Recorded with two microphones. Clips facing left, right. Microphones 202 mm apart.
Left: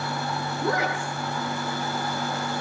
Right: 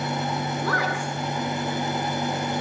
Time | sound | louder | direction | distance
0.6 | a woman speaking | left 1 dB | 20° left (ahead or behind) | 6.5 m